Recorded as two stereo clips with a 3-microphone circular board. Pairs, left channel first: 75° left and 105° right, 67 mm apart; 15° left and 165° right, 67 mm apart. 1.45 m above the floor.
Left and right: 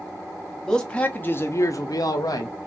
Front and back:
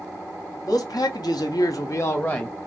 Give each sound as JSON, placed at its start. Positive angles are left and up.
{"t": 0.7, "sound": "a man speaking", "azimuth_deg": -5, "distance_m": 0.9}